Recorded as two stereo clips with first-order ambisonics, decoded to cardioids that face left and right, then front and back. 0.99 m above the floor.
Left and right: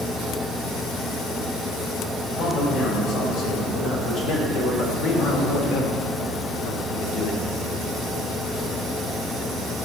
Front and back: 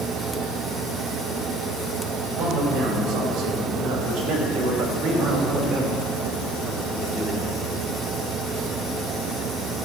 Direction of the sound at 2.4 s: 140° left.